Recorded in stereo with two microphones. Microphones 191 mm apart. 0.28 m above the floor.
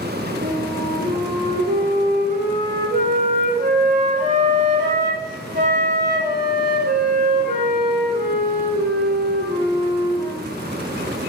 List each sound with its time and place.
0.4 s a flute: 45° right (ahead or behind), 6.5 m